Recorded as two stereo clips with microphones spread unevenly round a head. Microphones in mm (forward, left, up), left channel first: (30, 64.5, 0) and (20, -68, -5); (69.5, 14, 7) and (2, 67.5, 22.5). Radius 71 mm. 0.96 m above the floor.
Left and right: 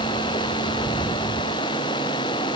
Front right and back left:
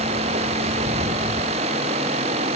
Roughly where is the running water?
Behind left.